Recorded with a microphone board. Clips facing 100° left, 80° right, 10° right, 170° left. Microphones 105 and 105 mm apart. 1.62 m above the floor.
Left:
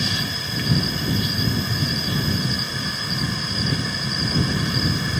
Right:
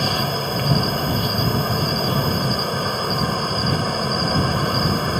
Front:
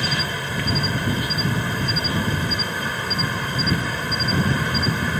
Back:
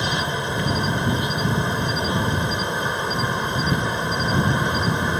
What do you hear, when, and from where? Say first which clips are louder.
0.0 s an insect: right 6 dB, back 2 dB; 120° right